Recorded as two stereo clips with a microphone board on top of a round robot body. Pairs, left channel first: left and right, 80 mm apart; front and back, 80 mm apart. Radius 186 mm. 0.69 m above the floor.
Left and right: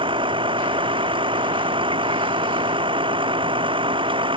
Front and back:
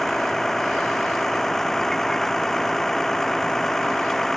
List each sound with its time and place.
0.0 s a vehicle: 85° right